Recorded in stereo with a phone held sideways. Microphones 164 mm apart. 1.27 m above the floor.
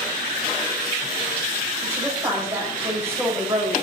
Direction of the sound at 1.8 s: 15° right (ahead or behind).